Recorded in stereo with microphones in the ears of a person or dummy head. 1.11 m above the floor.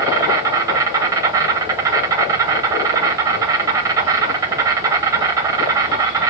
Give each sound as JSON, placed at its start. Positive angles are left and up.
{"t": 0.0, "sound": "an insect", "side_deg": -15, "distance_m": 0.8}